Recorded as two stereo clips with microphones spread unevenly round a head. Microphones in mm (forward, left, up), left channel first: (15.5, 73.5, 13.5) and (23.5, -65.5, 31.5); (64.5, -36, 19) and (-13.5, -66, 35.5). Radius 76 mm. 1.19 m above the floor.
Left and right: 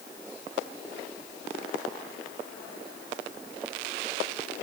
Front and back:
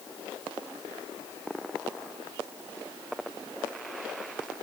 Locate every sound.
Only background noise.